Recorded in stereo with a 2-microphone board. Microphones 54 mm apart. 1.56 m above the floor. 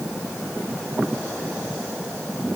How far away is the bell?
I don't hear a bell.